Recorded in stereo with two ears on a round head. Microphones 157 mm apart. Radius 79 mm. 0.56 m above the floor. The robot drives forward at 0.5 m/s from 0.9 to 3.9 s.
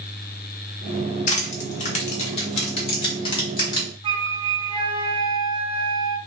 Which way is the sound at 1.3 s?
45° left (ahead or behind).